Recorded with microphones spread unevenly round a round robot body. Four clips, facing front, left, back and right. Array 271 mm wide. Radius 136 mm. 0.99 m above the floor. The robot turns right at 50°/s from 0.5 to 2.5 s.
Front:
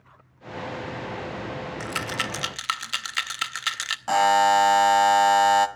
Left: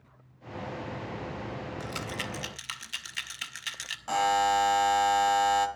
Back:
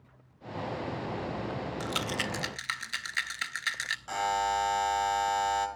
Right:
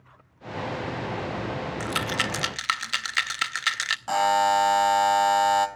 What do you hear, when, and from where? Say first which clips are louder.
1.8 s a rattle: right 8 dB, front 4 dB; 95° right, 0.8 m; by 4.0 s 60° right, 0.8 m
4.1 s a buzzer: right 4 dB, front 11 dB; 10° right, 1.8 m